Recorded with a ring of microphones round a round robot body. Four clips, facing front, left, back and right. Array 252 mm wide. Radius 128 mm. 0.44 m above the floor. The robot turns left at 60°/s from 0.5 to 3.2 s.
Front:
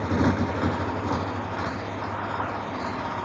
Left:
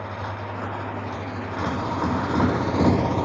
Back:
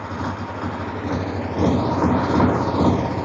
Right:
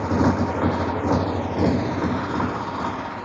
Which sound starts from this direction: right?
A motorcycle, at 0.0 s.